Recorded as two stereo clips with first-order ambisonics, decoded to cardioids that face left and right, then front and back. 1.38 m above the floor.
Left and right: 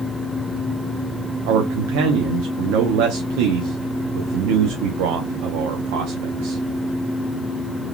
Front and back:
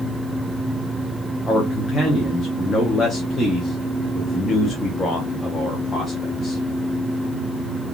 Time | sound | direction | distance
1.5 | a man speaking | 80° right | 0.6 m